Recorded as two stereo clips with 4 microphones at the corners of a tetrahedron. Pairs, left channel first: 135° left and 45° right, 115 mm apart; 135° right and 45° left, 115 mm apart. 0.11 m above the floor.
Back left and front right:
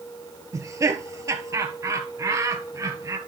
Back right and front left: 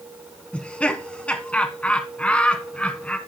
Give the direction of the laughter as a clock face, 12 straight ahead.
2 o'clock.